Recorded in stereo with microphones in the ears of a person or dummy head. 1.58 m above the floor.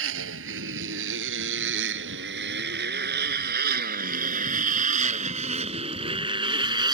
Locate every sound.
0.0 s a motorcycle: 70° right (ahead or behind); by 6.9 s 20° right (ahead or behind)